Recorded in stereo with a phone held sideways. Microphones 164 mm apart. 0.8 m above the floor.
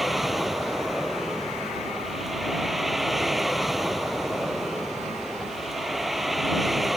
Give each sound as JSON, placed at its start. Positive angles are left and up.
{"t": 0.0, "sound": "a vehicle", "side_deg": 0}